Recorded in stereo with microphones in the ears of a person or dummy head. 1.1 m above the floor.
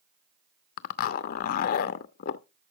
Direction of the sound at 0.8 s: 55° left (ahead or behind).